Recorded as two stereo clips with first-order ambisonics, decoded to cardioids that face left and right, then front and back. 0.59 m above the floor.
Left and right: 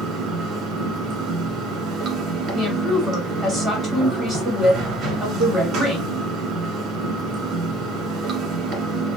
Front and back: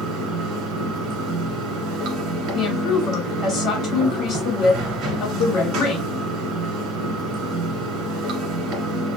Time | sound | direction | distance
0.0 | running water | 140° right | 1.2 m
2.5 | a woman speaking | 35° right | 1.3 m